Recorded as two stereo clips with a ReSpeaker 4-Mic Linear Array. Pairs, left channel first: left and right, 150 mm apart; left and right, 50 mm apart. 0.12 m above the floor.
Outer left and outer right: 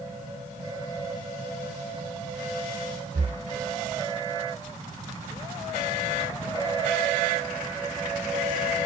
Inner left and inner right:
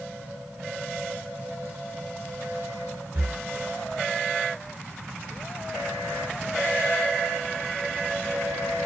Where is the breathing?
65° right (ahead or behind), 0.8 m.